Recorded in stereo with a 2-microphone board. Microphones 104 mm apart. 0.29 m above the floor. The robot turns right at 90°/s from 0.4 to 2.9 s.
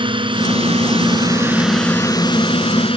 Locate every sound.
0.0 s a drone: 120° right; by 3.0 s 105° left